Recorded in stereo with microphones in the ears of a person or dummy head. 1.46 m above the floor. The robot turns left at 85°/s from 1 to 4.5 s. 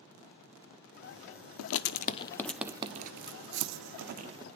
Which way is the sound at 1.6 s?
75° left (ahead or behind).